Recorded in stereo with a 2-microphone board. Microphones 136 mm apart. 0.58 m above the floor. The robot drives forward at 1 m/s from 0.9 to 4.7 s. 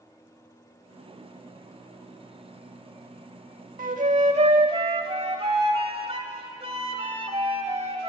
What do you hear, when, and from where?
3.8 s a flute: 85° right, 0.9 m; by 8.1 s 45° right (ahead or behind), 1.3 m